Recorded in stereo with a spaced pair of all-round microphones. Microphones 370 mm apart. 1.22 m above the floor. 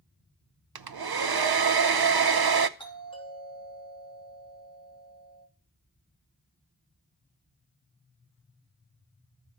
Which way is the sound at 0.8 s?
75° right (ahead or behind).